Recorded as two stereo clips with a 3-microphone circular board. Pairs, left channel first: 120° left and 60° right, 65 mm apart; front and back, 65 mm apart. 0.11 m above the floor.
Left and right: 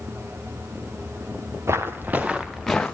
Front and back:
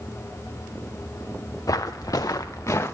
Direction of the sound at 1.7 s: 15° right.